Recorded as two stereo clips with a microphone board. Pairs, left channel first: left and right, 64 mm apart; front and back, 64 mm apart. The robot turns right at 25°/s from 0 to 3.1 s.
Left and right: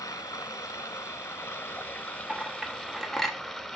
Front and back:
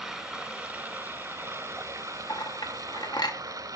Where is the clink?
15° right, 0.9 m; by 3.4 s 5° left, 0.9 m.